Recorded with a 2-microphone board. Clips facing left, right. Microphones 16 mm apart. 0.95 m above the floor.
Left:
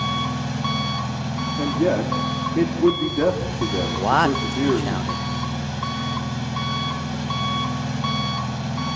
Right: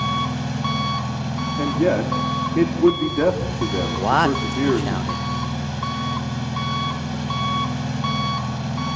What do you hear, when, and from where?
0.0 s an engine running: centre (ahead or behind), 2.0 m
1.6 s a man speaking: 30° right (ahead or behind), 2.5 m
4.0 s a man speaking: centre (ahead or behind), 0.7 m